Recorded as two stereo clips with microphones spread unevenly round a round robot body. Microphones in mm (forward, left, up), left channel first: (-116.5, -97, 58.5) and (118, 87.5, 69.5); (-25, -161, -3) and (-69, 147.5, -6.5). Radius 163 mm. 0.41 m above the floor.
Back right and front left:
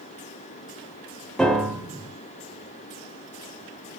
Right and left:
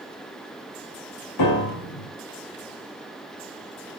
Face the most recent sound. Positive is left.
turn(degrees=-55)